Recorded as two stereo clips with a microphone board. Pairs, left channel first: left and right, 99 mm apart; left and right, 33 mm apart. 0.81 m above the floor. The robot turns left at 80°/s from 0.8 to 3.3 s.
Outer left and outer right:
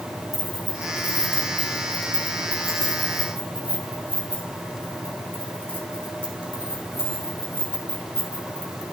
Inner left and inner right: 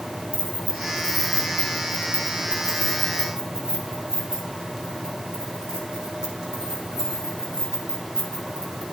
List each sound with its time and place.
0.3 s keys jangling: 40° left (ahead or behind), 5 m; by 8.8 s 20° right (ahead or behind), 5 m